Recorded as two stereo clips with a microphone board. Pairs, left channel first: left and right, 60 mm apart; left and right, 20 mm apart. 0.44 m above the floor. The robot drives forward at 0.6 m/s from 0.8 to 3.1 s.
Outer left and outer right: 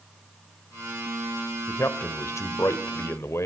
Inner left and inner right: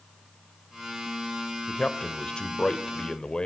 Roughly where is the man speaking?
Left.